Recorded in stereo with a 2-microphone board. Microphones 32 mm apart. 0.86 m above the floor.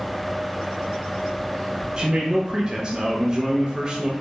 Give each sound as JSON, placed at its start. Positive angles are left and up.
{"t": 2.0, "sound": "a man speaking", "side_deg": -30, "distance_m": 0.5}